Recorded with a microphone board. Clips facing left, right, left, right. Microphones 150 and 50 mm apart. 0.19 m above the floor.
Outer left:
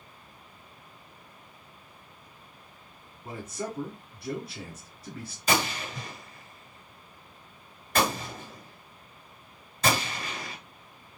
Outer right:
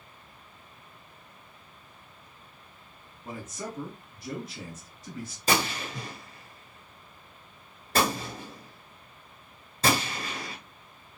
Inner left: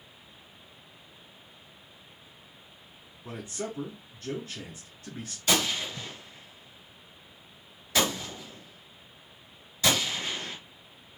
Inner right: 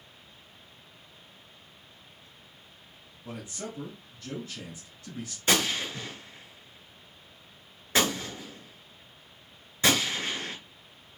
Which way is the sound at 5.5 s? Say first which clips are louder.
Even, inner right 1 dB; 35° right (ahead or behind).